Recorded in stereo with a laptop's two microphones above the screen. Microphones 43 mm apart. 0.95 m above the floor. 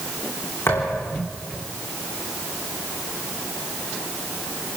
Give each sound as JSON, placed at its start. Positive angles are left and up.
{"t": 0.7, "sound": "a thud", "side_deg": 70, "distance_m": 6.5}